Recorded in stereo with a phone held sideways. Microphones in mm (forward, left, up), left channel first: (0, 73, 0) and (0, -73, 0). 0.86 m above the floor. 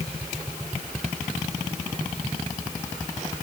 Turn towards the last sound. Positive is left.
No sound to turn to.